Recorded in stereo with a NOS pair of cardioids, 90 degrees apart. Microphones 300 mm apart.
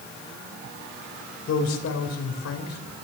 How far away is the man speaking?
About 4 m.